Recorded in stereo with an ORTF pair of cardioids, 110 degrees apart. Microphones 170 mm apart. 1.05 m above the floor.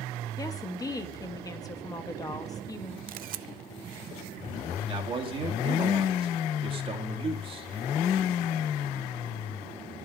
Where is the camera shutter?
55° right, 0.6 m.